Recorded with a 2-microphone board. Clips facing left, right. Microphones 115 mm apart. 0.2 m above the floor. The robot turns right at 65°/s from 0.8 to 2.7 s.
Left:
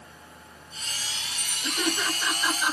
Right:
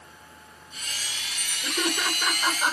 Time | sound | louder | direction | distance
1.6 | laughter | even | 25° right (ahead or behind) | 3 m